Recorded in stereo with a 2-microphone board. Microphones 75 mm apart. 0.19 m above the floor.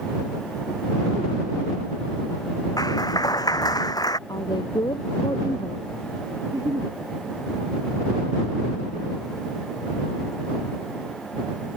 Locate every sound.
2.8 s a clap: 60° left (ahead or behind)
4.3 s a woman speaking: 70° left (ahead or behind)
6.4 s a giggle: 55° right (ahead or behind)